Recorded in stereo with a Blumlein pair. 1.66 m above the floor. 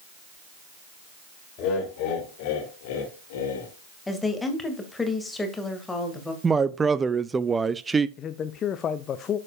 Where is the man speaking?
25° left, 0.6 m.